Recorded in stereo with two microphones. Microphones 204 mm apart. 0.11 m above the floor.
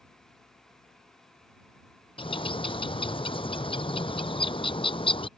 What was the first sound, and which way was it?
A bird, 25° left (ahead or behind).